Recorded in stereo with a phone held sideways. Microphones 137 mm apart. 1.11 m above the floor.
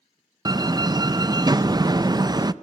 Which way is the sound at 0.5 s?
30° right (ahead or behind).